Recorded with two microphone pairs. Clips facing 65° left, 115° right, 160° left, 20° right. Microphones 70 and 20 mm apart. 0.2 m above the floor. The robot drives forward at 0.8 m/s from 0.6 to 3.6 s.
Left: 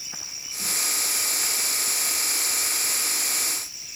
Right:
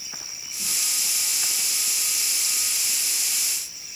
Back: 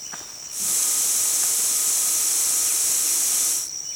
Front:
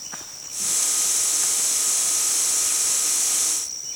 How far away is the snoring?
No snoring in this recording.